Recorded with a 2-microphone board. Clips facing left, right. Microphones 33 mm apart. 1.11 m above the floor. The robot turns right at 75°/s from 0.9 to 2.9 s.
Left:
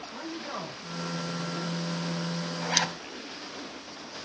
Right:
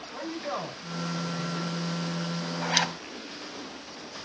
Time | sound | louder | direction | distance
0.1 | a man speaking | right 4 dB | 155° right | 4.5 m
2.6 | a zipper | right 2 dB | 25° right (ahead or behind) | 1.4 m